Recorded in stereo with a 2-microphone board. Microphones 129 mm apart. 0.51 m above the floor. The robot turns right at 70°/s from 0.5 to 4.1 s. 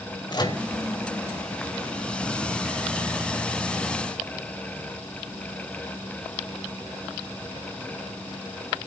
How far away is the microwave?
About 1.4 m.